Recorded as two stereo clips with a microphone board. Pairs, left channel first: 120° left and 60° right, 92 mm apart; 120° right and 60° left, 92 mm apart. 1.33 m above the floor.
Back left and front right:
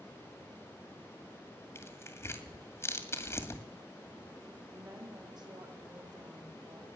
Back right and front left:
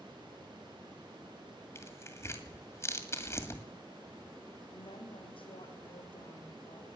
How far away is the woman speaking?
About 3 m.